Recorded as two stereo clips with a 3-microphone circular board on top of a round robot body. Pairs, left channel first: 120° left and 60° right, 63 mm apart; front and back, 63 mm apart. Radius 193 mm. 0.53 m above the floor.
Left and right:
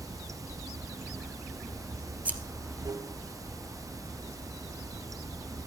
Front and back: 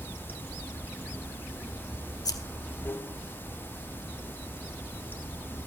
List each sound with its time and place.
0.0 s running water: 55° right, 1.3 m
2.2 s scissors: 5° left, 1.6 m